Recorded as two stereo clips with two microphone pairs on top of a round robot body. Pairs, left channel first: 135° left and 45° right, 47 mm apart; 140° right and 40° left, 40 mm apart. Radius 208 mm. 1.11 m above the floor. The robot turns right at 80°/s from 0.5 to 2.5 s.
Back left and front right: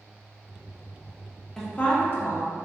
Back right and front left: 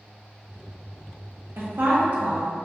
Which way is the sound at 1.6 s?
50° left.